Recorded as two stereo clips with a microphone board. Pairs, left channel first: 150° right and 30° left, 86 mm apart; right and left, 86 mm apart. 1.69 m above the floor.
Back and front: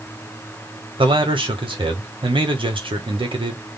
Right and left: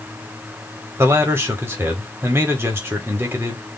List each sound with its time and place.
1.0 s a man speaking: 30° left, 1.2 m